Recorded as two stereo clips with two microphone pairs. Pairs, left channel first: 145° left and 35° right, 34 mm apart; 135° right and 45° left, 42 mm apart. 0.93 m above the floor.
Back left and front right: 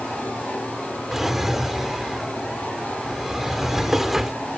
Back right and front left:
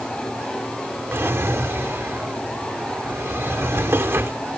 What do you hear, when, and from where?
1.1 s a drawer: 45° left